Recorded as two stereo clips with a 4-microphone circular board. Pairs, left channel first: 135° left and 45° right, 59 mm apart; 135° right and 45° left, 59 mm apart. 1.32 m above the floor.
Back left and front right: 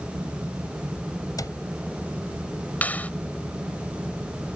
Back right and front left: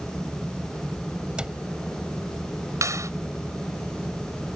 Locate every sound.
1.4 s a cupboard door: 120° left
2.8 s a clap: 70° left